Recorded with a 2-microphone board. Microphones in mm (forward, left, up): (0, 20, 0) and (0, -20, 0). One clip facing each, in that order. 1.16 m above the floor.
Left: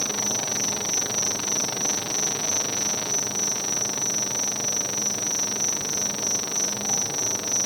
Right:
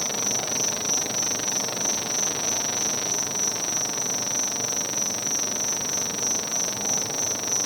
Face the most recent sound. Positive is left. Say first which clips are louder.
# even
turn(degrees=-65)  # may be behind; listen again after turning